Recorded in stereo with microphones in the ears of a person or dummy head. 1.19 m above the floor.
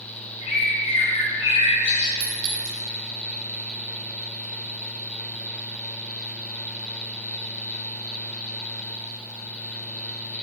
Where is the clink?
60° right (ahead or behind), 1.4 m.